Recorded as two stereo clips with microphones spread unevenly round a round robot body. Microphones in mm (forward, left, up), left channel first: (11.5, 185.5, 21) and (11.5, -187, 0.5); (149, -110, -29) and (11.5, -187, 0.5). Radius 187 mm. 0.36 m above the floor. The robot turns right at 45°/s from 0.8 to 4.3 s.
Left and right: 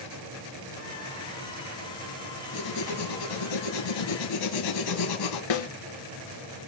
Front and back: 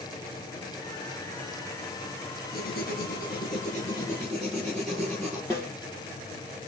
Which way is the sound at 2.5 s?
35° left.